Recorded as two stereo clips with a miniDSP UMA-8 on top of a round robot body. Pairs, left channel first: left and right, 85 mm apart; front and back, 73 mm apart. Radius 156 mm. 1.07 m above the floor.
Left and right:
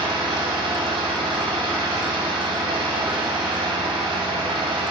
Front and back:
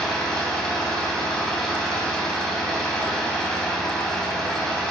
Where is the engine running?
85° right, 2.5 m.